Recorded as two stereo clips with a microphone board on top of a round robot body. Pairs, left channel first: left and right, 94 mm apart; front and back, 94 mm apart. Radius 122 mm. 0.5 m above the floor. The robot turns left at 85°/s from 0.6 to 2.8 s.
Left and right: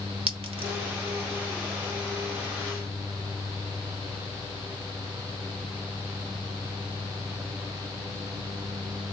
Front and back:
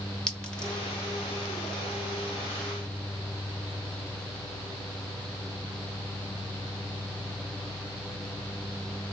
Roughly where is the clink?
Right.